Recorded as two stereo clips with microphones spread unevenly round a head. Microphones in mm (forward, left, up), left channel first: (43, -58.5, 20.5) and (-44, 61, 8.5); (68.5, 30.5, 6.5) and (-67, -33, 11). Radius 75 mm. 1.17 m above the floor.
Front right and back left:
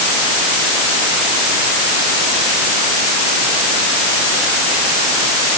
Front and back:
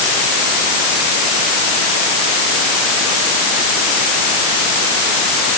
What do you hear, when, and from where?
Only background noise.